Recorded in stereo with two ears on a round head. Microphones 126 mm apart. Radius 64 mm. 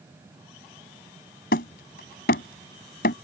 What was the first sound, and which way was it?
Hammering, 80° left.